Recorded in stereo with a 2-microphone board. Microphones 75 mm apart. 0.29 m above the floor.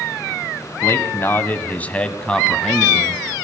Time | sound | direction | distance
0.8 | a man speaking | 35° left (ahead or behind) | 1.8 m